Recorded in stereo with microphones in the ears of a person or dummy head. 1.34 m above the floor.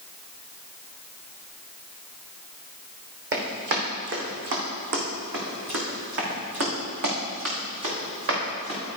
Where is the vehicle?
I don't hear a vehicle.